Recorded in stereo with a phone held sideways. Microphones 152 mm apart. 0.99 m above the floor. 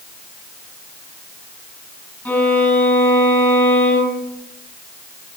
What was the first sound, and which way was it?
A violin, 5° left (ahead or behind).